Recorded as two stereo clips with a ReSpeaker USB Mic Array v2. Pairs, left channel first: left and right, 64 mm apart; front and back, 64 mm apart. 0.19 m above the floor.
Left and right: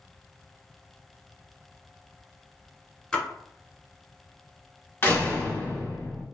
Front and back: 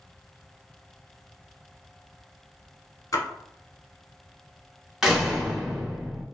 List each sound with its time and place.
3.1 s a splash: 15° left, 0.9 m
5.0 s a door slam: 110° left, 0.9 m